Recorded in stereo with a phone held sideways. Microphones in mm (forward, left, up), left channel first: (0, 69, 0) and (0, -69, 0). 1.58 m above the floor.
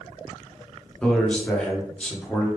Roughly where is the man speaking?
Centre.